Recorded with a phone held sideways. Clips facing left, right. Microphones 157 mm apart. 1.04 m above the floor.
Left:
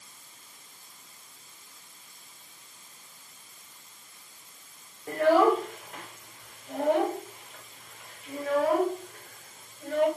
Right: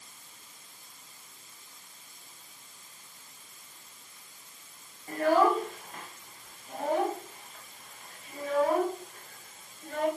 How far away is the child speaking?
About 4 m.